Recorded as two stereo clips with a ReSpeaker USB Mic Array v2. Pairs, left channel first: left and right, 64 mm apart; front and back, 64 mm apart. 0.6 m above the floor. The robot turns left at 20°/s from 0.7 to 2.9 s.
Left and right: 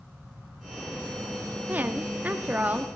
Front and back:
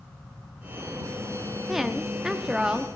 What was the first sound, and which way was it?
A woman speaking, 100° right.